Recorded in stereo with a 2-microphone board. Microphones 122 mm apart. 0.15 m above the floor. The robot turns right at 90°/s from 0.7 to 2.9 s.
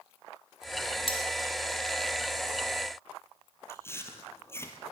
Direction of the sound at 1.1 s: 50° left (ahead or behind).